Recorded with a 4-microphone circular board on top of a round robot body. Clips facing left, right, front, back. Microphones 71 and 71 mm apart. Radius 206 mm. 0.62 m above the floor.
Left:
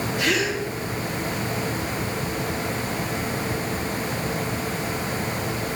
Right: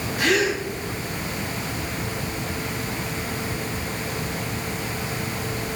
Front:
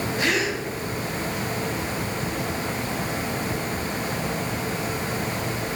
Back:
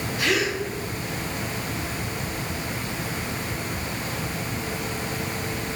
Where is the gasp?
50° right, 3 m.